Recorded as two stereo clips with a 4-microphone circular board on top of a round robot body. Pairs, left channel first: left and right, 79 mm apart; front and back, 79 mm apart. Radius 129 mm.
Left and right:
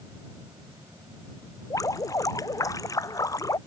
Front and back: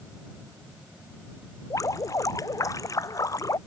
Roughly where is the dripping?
Ahead left.